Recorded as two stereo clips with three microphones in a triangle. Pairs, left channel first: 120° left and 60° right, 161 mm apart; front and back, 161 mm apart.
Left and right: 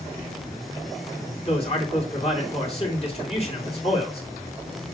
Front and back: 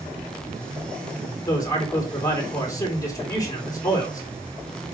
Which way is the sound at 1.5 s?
70° left.